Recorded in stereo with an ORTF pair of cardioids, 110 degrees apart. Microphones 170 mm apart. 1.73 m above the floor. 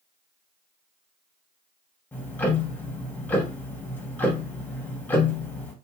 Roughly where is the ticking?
Ahead.